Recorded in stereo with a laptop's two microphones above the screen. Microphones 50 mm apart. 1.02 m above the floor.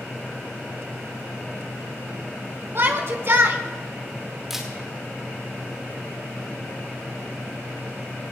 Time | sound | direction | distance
2.8 | a shout | 50° right (ahead or behind) | 1.5 m
4.5 | a camera shutter | 5° right (ahead or behind) | 2.0 m